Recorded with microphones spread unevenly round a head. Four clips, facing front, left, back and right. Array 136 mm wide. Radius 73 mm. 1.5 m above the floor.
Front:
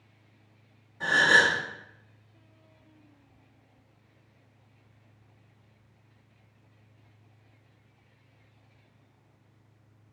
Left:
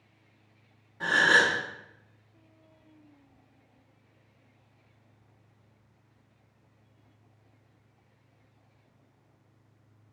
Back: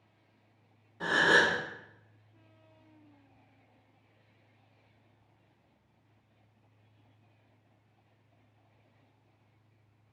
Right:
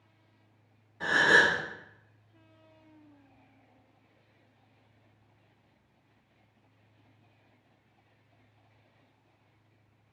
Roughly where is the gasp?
Behind left.